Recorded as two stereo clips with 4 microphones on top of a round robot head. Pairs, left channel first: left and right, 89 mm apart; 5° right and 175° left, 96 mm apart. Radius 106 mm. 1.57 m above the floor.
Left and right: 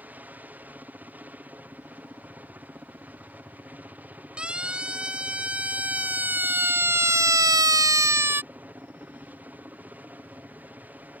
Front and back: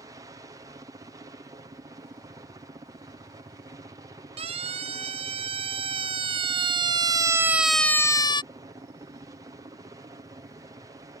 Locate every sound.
0.0 s a helicopter: 155° right
4.4 s a siren: 170° right; by 8.4 s 30° right